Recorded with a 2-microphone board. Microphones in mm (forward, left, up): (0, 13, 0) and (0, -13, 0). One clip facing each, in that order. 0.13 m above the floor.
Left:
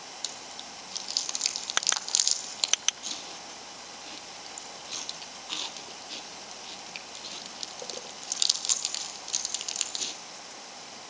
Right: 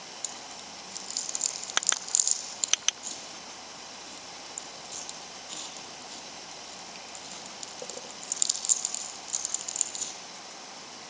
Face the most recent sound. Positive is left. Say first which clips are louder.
# left 2 dB
turn(degrees=40)  # may be behind; listen again after turning